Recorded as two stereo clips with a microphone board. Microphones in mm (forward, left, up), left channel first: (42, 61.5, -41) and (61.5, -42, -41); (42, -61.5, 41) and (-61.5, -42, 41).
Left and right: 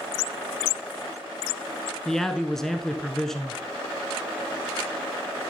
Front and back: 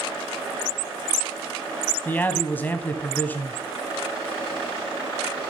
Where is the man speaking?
25° left, 1.0 m.